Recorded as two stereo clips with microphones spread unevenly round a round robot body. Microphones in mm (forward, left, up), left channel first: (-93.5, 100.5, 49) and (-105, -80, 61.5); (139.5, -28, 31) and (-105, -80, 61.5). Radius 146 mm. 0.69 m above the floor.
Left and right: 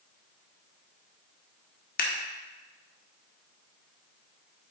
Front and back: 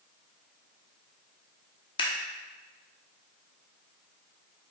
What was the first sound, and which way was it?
Scissors, 75° left.